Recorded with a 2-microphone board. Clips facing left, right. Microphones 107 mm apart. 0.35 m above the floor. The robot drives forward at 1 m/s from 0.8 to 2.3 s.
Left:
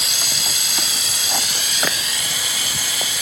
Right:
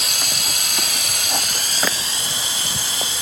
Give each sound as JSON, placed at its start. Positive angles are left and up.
{"t": 0.0, "sound": "running water", "side_deg": -55, "distance_m": 0.8}